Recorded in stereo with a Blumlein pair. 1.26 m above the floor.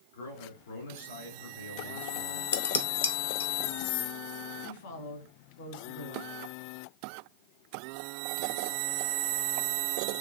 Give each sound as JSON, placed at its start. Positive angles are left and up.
{"t": 0.1, "sound": "a man speaking", "azimuth_deg": 60, "distance_m": 3.5}
{"t": 2.5, "sound": "dishes clattering", "azimuth_deg": 65, "distance_m": 0.6}
{"t": 4.6, "sound": "a woman speaking", "azimuth_deg": 55, "distance_m": 2.5}